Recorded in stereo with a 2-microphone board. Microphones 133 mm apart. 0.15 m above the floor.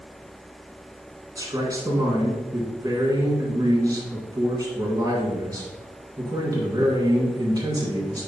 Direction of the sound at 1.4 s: 30° right (ahead or behind).